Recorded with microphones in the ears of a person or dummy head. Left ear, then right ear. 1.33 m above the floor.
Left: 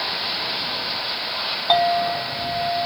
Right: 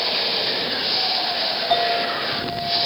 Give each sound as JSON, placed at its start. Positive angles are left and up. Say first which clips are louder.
{"t": 1.7, "sound": "a clink", "louder": "left 4 dB", "side_deg": 70, "distance_m": 1.5}